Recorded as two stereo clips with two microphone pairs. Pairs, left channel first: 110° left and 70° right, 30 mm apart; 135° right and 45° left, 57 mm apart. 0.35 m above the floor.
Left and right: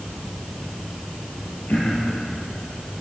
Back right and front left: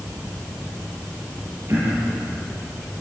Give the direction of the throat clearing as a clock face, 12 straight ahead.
9 o'clock.